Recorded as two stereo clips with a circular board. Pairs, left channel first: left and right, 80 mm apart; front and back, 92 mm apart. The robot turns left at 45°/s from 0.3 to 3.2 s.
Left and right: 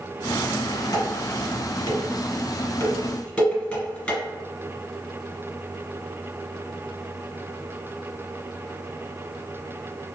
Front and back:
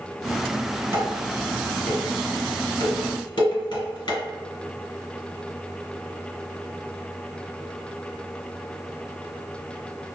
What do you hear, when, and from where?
0.9 s dishes clattering: 120° left, 2.0 m; by 4.2 s 15° left, 2.0 m